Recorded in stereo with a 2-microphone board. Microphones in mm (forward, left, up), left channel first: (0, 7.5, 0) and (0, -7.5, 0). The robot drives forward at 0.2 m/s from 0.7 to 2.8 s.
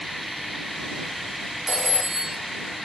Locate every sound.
1.7 s a phone ringing: 40° right (ahead or behind), 1.3 m